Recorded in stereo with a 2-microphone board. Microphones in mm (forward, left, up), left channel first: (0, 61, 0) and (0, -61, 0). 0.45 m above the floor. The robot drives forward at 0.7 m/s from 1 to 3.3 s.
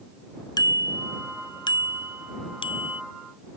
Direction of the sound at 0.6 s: 35° left (ahead or behind).